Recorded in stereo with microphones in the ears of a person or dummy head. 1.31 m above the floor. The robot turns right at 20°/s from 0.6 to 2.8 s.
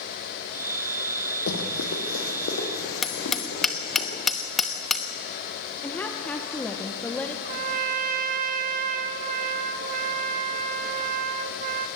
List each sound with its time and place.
1.5 s running footsteps: 70° left (ahead or behind), 3.5 m; by 4.0 s 55° left (ahead or behind), 6.5 m
3.0 s hammering: 5° left (ahead or behind), 1.1 m
5.8 s a woman speaking: 10° left (ahead or behind), 1.2 m
7.5 s a trumpet: 50° right (ahead or behind), 0.9 m